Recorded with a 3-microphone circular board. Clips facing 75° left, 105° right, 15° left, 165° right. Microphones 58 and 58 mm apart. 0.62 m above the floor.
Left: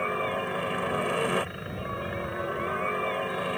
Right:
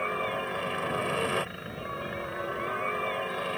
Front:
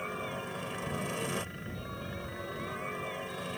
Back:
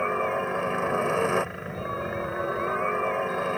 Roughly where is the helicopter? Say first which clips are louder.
Left 2 dB, back 12 dB; behind.